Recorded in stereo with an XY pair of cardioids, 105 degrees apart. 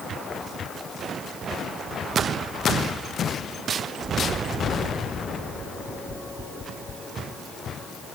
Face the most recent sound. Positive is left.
No sound to turn to.